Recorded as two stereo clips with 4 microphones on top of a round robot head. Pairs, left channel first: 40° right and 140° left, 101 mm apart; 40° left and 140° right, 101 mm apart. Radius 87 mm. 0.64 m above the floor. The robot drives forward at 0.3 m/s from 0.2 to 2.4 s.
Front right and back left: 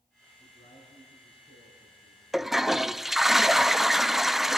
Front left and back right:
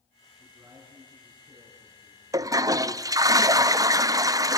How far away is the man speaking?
About 9 m.